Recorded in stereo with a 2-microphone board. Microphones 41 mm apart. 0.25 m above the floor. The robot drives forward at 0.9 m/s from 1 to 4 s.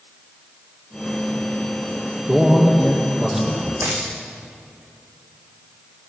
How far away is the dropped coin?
About 5 m.